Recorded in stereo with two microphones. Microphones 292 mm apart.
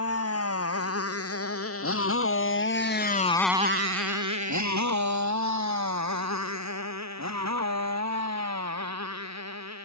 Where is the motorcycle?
50° left (ahead or behind); by 9.9 s 60° right (ahead or behind).